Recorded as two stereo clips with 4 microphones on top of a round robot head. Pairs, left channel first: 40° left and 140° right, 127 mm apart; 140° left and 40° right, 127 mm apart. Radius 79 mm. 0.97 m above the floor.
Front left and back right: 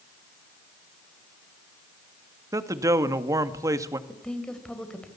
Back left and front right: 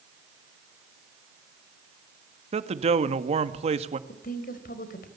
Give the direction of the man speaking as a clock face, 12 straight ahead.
3 o'clock.